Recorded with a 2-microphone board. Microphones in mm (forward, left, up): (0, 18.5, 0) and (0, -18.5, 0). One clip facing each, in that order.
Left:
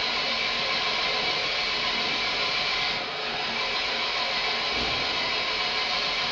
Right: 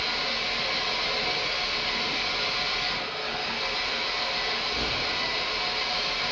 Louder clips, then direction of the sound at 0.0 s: Left 2 dB; 45° left (ahead or behind).